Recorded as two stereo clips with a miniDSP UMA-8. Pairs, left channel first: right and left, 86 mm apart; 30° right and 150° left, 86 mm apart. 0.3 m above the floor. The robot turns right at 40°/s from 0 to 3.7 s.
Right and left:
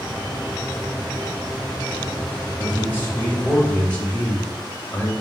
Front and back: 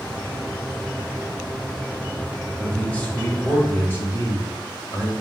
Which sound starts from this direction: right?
A man speaking, at 2.6 s.